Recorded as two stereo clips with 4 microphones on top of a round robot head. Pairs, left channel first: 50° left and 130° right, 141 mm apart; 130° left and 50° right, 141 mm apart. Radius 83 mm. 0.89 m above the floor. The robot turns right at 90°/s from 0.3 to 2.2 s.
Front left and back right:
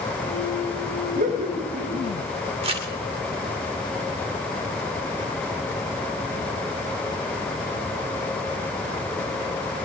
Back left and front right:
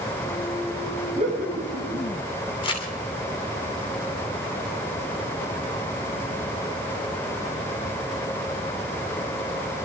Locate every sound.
1.1 s laughter: 105° right, 8 m; by 2.0 s 25° right, 8 m
2.6 s crumpling: straight behind, 3 m